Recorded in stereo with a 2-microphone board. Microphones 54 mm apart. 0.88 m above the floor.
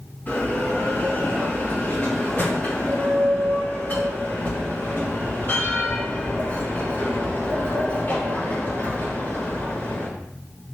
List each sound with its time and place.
0.3 s a bell: 35° left (ahead or behind), 2.5 m